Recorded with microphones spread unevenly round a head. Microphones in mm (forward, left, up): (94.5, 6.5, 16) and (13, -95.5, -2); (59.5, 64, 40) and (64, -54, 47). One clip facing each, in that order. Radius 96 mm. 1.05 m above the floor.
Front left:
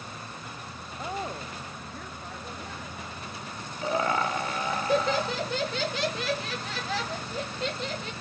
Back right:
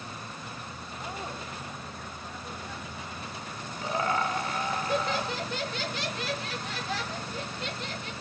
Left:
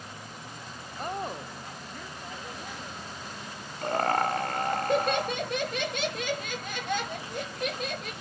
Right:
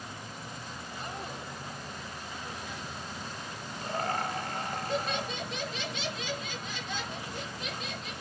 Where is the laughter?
55° left, 1.6 m.